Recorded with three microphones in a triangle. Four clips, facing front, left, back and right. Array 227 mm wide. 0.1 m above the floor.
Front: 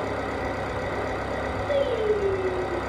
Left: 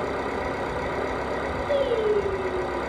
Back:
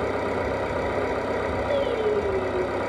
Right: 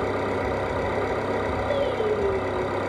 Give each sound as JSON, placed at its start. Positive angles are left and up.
{"t": 0.0, "sound": "an engine running", "azimuth_deg": -135, "distance_m": 1.0}
{"t": 1.7, "sound": "singing", "azimuth_deg": 20, "distance_m": 2.5}